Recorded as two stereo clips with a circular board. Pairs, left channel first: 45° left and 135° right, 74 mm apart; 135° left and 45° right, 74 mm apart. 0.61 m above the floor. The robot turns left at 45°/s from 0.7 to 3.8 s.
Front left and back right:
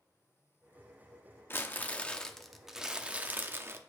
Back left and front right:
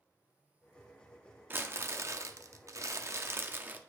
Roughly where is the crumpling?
Ahead.